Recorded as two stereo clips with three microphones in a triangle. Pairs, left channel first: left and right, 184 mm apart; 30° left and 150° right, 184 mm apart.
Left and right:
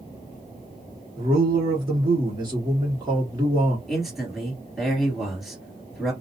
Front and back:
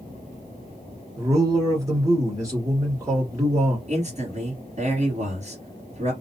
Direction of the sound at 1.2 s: 105° right.